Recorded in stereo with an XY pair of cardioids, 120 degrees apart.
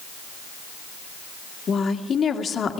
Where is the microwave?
No microwave in this recording.